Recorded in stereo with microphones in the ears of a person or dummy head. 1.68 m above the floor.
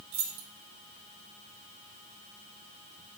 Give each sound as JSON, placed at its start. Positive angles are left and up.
{"t": 0.1, "sound": "keys jangling", "side_deg": -55, "distance_m": 2.0}